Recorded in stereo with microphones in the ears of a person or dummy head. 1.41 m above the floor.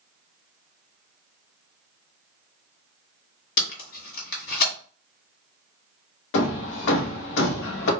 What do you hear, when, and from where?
3.6 s tape being pulled: 50° left (ahead or behind), 1.4 m
6.3 s hammering: 65° left (ahead or behind), 0.7 m